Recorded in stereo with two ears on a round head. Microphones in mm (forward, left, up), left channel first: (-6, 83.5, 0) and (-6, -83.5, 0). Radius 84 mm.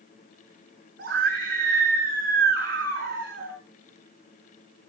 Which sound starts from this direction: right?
A scream, at 1.0 s.